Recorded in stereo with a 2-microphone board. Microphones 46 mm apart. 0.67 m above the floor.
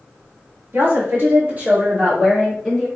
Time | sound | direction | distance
0.7 | a woman speaking | 55° right (ahead or behind) | 1.7 m